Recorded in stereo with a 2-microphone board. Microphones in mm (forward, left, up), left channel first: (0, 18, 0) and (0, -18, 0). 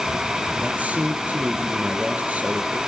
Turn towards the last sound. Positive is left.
turn(degrees=-40)  # may be behind; listen again after turning